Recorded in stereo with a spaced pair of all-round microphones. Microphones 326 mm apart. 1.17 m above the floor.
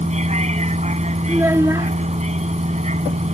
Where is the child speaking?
10° right (ahead or behind).